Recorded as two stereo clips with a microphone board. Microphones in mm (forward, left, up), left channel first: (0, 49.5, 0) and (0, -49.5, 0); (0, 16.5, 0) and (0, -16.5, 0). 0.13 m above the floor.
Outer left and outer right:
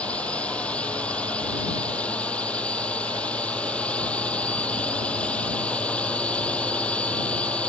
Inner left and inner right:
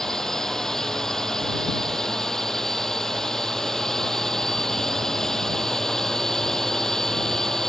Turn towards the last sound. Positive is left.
turn(degrees=15)  # may be behind; listen again after turning